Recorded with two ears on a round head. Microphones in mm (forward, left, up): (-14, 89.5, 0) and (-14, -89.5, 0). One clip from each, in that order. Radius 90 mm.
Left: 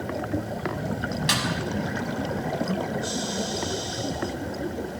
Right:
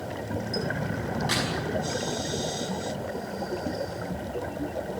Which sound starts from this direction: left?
A snare drum, at 1.3 s.